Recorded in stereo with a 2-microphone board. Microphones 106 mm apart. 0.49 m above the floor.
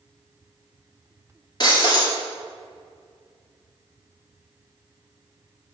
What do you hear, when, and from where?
1.6 s breaking glass: 40° left (ahead or behind), 2 m